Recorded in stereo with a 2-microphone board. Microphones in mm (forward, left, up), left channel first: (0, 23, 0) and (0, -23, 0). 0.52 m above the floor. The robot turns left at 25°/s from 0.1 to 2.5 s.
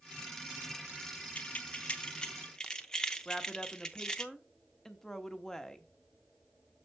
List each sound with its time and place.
1.4 s keys jangling: 35° left (ahead or behind), 0.6 m; by 4.2 s 15° left (ahead or behind), 0.6 m
3.2 s a woman speaking: 15° left (ahead or behind), 0.7 m